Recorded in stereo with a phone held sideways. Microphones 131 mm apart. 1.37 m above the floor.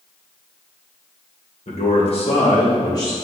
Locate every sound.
1.7 s a man speaking: 65° left (ahead or behind), 1.5 m; by 3.1 s 30° left (ahead or behind), 2.5 m